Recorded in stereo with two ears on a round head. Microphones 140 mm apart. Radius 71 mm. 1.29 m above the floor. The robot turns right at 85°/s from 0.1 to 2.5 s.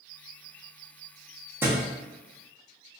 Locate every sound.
1.6 s a thud: 15° right (ahead or behind), 0.7 m; by 1.8 s 20° right (ahead or behind), 0.7 m